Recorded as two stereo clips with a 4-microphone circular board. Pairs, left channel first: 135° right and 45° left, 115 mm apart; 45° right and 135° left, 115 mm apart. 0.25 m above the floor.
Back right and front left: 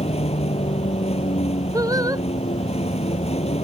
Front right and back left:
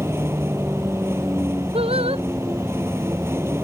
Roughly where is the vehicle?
Behind right.